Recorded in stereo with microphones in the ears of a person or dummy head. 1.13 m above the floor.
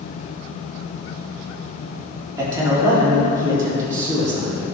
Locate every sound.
2.4 s a man speaking: 20° right (ahead or behind), 3 m